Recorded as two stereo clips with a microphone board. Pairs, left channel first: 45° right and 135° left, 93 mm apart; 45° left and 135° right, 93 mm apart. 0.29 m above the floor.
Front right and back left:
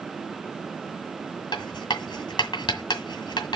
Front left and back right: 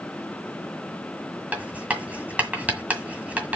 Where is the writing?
65° right, 1.7 m.